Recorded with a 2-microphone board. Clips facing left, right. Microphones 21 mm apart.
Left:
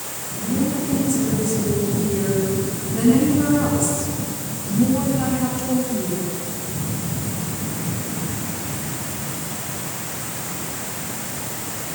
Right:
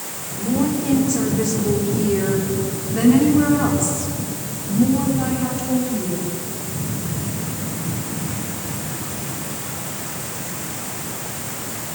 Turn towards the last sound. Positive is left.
turn(degrees=10)  # may be behind; listen again after turning